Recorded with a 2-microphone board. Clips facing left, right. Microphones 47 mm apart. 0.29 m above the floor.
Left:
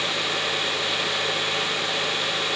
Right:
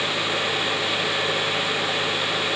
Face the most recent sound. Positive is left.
No sound to turn to.